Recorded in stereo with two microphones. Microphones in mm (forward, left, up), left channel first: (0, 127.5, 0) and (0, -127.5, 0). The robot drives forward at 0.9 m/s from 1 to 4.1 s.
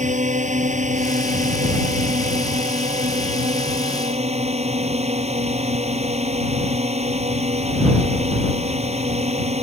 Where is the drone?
30° right (ahead or behind); by 9.6 s 25° right (ahead or behind).